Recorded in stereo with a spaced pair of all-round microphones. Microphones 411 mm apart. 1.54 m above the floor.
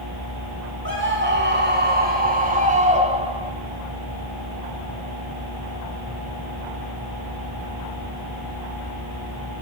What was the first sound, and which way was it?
A scream, 30° right (ahead or behind).